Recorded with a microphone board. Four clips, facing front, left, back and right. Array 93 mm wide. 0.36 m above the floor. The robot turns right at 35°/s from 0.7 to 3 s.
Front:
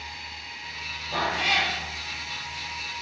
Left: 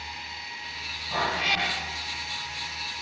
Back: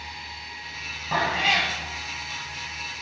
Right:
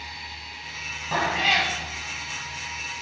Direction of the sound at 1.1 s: 150° right.